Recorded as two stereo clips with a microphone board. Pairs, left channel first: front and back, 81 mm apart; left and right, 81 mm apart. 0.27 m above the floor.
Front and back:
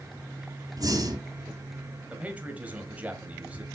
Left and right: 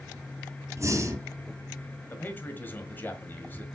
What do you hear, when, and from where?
0.8 s breathing: 145° right, 2.5 m
2.1 s a man speaking: 125° left, 1.6 m